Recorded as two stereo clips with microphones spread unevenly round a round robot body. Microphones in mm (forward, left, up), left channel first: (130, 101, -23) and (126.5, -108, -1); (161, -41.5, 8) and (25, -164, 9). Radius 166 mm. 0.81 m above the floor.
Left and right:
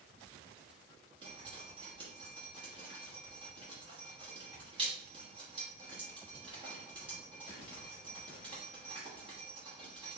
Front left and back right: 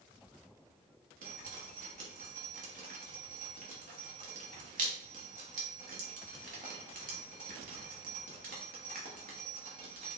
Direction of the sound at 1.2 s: 160° right.